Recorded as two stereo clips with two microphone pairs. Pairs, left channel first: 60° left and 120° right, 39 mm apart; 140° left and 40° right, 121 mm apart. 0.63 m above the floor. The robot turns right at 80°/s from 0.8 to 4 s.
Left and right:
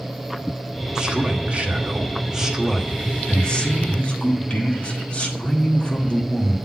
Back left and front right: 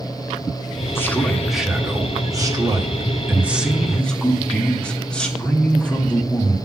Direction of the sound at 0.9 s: 175° right.